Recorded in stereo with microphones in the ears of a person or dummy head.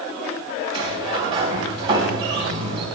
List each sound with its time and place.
0.7 s a sliding door: 25° right (ahead or behind), 4 m